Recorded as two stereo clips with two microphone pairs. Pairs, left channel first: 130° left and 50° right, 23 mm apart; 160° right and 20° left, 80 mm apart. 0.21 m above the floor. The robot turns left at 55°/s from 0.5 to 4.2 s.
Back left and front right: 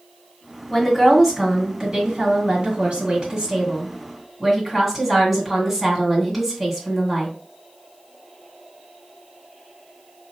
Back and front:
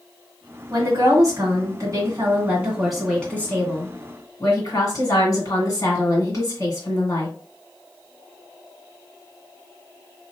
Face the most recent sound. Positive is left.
turn(degrees=-140)